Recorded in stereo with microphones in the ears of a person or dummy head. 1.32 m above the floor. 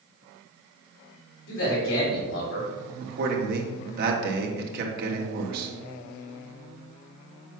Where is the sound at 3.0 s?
50° right (ahead or behind), 2 m.